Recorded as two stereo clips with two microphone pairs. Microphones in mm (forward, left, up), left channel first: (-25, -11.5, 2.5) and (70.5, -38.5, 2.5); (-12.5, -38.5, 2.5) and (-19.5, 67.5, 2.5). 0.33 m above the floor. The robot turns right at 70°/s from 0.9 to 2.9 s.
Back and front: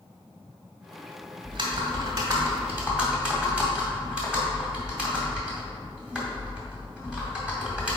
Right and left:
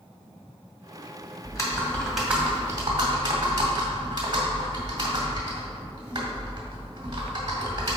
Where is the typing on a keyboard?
45° right, 1.8 m; by 8.0 s 60° left, 1.8 m.